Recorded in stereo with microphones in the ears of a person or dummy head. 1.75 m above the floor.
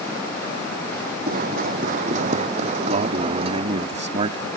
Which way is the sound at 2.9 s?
40° right (ahead or behind).